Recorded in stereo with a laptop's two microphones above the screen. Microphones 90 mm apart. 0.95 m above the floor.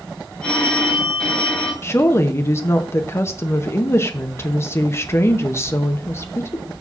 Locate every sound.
0.4 s a phone ringing: 10° left (ahead or behind), 2.5 m
1.8 s a woman speaking: 30° left (ahead or behind), 0.7 m